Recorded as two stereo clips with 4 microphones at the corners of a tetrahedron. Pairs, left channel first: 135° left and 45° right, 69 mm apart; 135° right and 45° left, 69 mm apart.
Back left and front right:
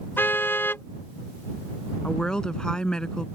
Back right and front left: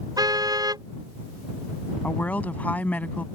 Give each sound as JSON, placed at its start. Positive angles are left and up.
{"t": 0.2, "sound": "a car horn", "azimuth_deg": 70}
{"t": 2.0, "sound": "a woman speaking", "azimuth_deg": -160}